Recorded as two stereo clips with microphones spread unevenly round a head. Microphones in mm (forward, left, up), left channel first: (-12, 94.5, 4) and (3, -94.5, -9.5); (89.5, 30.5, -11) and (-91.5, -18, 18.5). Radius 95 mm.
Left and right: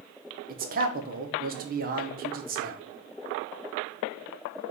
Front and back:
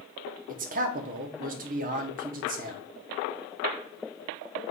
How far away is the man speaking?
About 0.8 m.